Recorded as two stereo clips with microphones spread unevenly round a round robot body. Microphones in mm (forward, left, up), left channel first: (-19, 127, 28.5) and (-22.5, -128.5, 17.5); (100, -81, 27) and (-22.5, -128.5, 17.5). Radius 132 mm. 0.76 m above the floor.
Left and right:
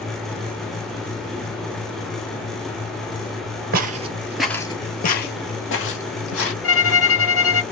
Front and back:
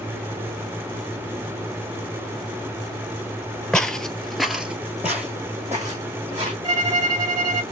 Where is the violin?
130° left, 0.8 m.